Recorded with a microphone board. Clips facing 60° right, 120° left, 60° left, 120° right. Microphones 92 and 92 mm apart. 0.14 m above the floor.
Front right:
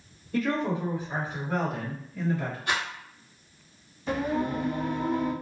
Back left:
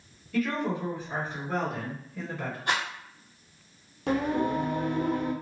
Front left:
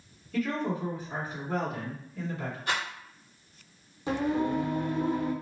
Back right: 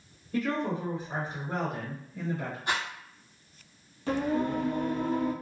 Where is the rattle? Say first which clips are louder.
Back left 1 dB, even; 175° left, 1.7 m.